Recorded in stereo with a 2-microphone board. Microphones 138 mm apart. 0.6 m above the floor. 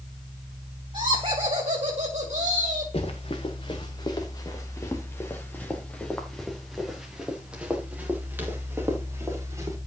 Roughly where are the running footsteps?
Left.